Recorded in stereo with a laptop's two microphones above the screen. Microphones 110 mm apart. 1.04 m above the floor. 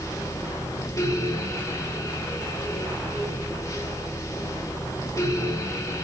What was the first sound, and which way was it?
A fan, 30° left (ahead or behind).